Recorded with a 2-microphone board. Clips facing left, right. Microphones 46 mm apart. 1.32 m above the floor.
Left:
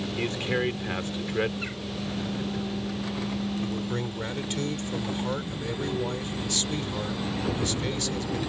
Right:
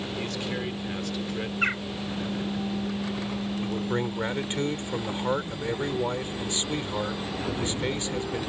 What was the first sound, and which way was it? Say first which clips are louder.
A man speaking: left 6 dB; 35° left (ahead or behind).